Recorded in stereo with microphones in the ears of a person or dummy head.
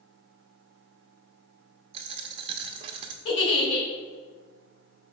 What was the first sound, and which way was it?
A dropped coin, 30° right (ahead or behind).